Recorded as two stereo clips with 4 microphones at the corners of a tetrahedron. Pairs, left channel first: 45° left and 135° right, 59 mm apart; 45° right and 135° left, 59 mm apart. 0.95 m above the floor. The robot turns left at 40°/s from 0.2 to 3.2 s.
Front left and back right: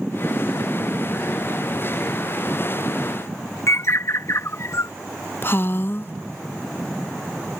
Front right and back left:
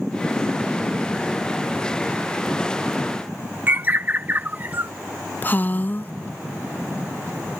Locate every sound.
3.7 s a bird: 80° left
5.4 s a woman speaking: 5° left